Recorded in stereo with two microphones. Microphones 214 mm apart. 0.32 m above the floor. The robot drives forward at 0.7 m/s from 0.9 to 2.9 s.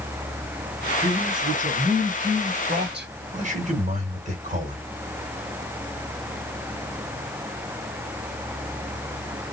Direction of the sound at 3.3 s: 35° right (ahead or behind).